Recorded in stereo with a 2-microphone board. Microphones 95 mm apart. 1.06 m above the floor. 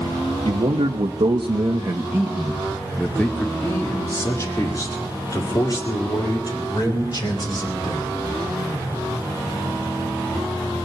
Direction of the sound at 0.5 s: 75° right (ahead or behind).